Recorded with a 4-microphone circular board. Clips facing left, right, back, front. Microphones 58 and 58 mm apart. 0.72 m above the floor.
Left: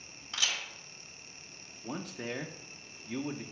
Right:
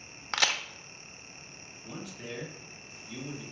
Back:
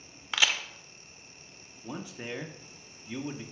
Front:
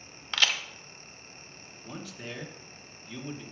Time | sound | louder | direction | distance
0.3 | a crack | right 6 dB, even | 100° right | 0.6 m
1.8 | a man speaking | left 3 dB, back 2 dB | 115° left | 0.9 m